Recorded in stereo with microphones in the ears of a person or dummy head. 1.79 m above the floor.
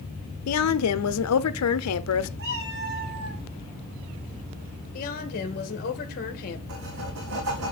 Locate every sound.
0.5 s a woman speaking: 85° left, 0.8 m
2.4 s a cat meowing: 70° right (ahead or behind), 3.5 m
4.9 s a woman speaking: 45° left (ahead or behind), 1.9 m
6.7 s writing: 80° right, 2.5 m